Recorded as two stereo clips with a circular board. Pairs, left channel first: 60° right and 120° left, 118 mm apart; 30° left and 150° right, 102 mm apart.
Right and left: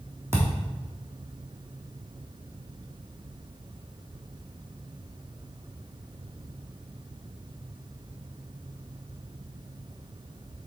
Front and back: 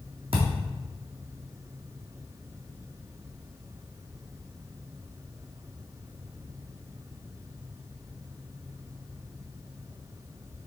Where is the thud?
170° right, 1.4 m.